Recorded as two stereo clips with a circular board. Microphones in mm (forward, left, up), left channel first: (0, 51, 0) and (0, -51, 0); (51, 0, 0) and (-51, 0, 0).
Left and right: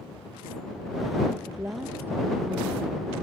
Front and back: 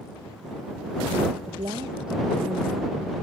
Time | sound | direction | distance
1.4 | a woman speaking | 155° right | ?